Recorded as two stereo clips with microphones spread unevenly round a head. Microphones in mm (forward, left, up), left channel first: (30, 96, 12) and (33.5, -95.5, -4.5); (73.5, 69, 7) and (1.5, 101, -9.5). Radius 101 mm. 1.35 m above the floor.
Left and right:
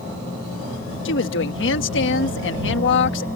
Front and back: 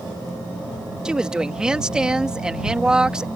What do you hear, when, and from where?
1.1 s a woman speaking: 75° left